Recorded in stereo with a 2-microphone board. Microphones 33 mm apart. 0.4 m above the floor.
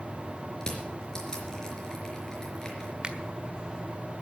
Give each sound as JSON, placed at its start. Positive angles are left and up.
{"t": 0.6, "sound": "crushing", "side_deg": 25, "distance_m": 4.0}
{"t": 3.0, "sound": "a finger snap", "side_deg": -30, "distance_m": 1.3}